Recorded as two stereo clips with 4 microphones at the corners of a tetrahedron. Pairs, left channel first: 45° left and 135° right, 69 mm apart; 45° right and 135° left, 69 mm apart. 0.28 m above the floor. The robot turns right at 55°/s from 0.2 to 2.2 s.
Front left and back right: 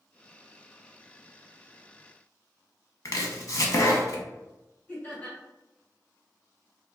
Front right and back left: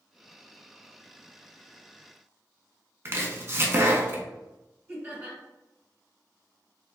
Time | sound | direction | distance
3.0 | chopping | 85° left | 0.6 m
4.9 | laughter | 100° left | 1.6 m